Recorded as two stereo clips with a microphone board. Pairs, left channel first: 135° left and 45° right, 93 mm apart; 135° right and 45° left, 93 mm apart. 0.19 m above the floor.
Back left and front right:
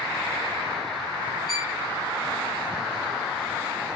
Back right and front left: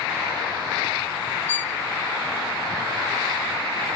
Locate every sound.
1.5 s a violin: 125° right, 1.6 m